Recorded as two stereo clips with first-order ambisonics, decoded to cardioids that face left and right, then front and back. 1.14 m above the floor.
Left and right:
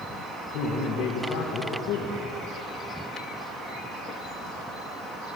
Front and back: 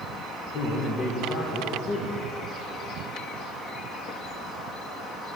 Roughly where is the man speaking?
Ahead left.